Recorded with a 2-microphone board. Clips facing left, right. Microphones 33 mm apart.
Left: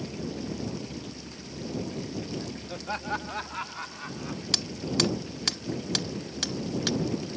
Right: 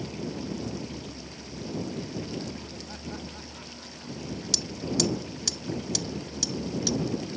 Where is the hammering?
45° left (ahead or behind).